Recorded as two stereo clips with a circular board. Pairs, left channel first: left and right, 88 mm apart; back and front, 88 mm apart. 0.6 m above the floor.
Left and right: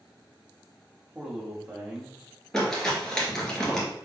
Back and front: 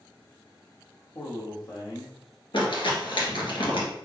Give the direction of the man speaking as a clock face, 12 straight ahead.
6 o'clock.